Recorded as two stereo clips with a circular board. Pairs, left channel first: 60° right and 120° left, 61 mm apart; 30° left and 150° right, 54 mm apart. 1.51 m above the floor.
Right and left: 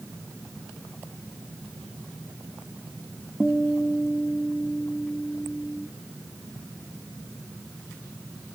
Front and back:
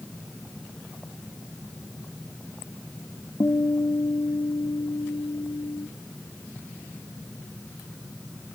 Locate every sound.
3.4 s a guitar: 30° left, 1.5 m